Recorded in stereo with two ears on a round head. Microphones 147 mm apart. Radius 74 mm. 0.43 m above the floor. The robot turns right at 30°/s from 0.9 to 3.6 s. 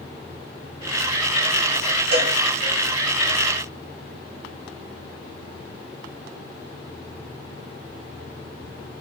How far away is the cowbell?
About 4 m.